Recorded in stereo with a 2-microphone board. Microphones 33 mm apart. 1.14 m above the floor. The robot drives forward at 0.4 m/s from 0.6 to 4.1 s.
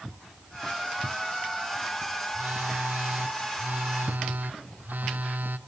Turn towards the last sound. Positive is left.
turn(degrees=-70)  # may be behind; listen again after turning